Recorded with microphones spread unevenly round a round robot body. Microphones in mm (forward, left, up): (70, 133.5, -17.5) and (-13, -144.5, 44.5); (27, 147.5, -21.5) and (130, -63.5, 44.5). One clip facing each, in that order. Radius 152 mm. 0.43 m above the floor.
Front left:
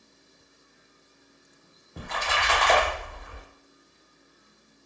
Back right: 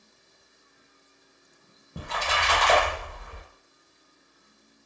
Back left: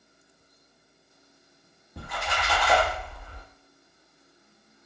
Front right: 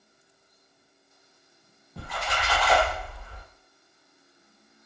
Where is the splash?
165° right, 0.6 m.